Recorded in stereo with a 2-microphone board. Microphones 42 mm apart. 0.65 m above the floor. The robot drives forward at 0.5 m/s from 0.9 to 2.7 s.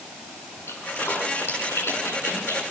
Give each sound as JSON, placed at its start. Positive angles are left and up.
{"t": 0.7, "sound": "a splash", "side_deg": 70, "distance_m": 5.0}